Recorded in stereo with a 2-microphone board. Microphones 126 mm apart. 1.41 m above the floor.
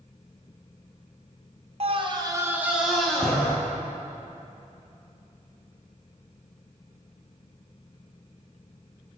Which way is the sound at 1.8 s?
50° right (ahead or behind).